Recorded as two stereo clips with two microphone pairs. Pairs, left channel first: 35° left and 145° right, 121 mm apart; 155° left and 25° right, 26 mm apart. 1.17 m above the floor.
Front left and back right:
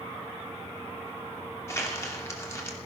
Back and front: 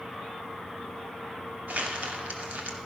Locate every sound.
1.7 s crumpling: 30° right, 2.5 m